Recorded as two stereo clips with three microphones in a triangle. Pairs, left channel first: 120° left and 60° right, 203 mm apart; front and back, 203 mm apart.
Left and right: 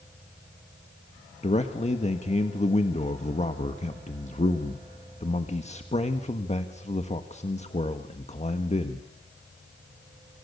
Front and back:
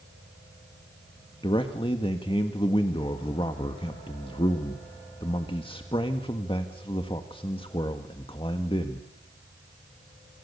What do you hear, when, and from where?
1.4 s a man speaking: 65° left, 1.6 m